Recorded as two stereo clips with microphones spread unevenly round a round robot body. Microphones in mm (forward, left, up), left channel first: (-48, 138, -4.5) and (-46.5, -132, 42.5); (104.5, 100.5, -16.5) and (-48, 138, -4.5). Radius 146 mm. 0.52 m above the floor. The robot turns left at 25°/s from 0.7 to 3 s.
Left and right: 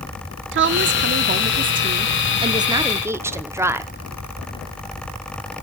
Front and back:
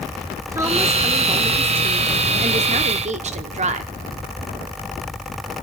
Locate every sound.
0.5 s a woman speaking: 120° right, 0.7 m; by 3.9 s straight behind, 0.7 m